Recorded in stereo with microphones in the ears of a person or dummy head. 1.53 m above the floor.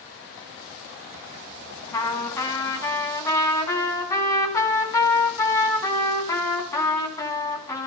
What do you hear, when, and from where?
1.9 s a trumpet: 20° left (ahead or behind), 2.5 m